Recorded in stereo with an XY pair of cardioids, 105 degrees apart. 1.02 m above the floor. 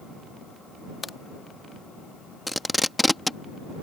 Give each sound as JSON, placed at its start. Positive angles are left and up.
{"t": 1.0, "sound": "a crack", "azimuth_deg": 25}
{"t": 2.5, "sound": "tape being pulled", "azimuth_deg": 5}